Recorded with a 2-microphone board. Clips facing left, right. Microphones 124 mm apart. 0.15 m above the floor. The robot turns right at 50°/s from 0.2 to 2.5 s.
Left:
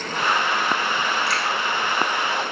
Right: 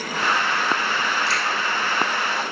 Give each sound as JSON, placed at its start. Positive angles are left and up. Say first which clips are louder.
{"t": 1.3, "sound": "a finger snap", "louder": "even", "side_deg": 55, "distance_m": 5.0}